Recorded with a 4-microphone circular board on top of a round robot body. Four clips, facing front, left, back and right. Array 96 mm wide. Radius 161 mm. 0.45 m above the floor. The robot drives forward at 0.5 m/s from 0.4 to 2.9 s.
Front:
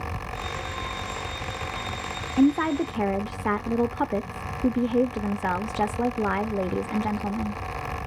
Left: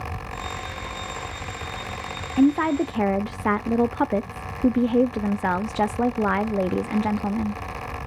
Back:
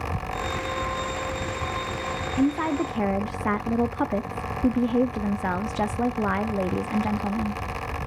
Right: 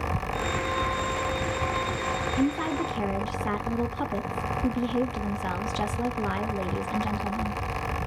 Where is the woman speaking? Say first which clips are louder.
Left 10 dB, front 3 dB; 60° left, 0.8 m; by 7.6 s 95° left, 0.8 m.